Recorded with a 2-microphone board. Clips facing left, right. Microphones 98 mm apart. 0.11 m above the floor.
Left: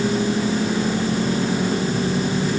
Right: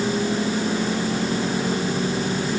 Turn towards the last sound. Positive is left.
No sound to turn to.